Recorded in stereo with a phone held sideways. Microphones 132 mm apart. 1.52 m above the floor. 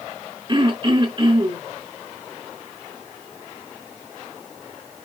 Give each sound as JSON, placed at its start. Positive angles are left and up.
{"t": 0.5, "sound": "throat clearing", "side_deg": -35, "distance_m": 3.5}